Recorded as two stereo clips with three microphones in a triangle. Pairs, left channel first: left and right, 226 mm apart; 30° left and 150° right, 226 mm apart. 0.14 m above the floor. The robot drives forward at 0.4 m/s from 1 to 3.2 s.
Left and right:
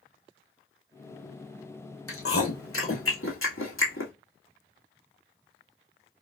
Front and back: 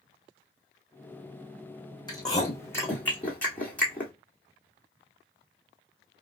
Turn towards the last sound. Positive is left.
turn(degrees=115)